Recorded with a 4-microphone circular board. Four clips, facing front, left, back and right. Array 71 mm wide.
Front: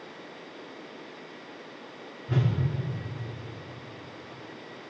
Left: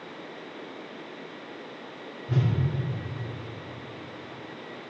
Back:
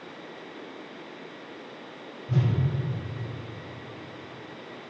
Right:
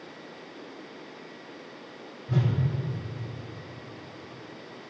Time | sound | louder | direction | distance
2.3 | a whoosh | even, back 1 dB | 25° left | 3 m